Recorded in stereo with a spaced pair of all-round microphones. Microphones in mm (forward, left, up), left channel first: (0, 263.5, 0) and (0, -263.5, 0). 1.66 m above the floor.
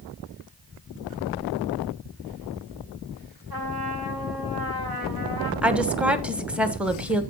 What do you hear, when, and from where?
3.5 s a trumpet: 40° right (ahead or behind), 3 m
5.6 s a woman speaking: centre (ahead or behind), 1.1 m